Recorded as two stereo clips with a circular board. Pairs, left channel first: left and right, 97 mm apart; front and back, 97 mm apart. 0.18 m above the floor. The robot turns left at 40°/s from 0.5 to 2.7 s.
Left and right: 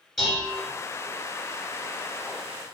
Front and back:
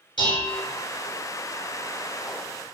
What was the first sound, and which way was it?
Dishes clattering, 5° left.